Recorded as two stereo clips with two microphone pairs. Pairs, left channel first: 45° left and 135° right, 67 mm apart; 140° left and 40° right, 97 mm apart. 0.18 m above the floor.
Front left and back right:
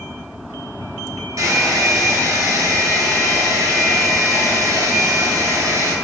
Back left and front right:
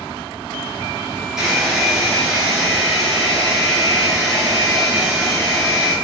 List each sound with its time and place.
1.4 s a hair dryer: 120° right, 3 m